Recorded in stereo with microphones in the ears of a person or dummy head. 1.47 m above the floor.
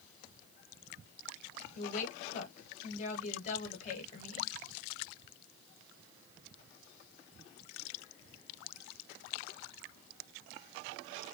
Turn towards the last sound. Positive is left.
turn(degrees=40)  # may be behind; listen again after turning